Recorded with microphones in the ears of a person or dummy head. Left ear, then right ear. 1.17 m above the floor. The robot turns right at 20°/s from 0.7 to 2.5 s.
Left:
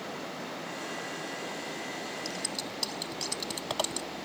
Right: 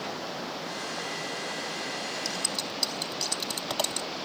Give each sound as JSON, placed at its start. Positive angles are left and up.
{"t": 0.0, "sound": "running water", "azimuth_deg": -95}
{"t": 2.2, "sound": "scissors", "side_deg": -10}